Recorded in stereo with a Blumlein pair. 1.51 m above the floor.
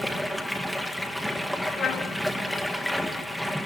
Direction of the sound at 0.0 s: Straight ahead.